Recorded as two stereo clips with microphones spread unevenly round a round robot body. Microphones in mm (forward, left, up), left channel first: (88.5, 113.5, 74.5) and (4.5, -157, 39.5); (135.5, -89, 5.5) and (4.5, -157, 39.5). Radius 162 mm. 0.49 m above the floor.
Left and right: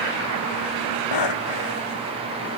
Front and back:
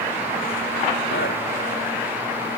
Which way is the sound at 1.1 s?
85° left.